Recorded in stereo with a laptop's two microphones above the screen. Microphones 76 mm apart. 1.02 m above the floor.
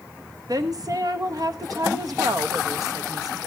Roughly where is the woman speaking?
Right.